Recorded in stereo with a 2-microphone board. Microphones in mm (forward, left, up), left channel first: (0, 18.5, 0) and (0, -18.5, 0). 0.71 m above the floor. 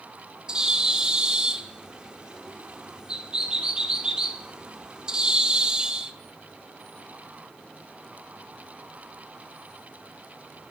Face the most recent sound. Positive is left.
turn(degrees=-20)  # may be behind; listen again after turning